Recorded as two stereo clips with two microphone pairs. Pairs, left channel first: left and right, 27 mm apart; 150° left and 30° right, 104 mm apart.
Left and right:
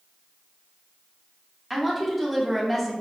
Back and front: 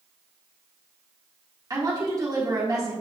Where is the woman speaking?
15° right, 1.3 m.